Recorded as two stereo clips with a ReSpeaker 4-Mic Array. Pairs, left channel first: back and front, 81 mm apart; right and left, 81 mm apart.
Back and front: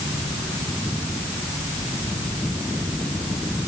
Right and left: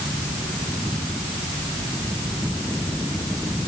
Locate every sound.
Only background noise.